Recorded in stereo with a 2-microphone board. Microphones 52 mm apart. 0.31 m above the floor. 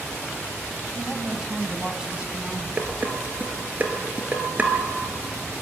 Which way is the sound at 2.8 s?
30° right (ahead or behind).